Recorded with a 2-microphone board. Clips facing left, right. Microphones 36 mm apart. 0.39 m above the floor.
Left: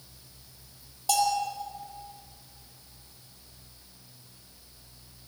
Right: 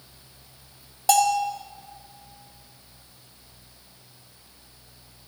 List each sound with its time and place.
1.1 s a bell: 70° right (ahead or behind), 2 m